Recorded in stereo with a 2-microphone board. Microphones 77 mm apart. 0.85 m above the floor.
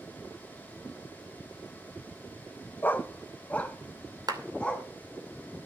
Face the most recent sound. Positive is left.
turn(degrees=-55)  # may be behind; listen again after turning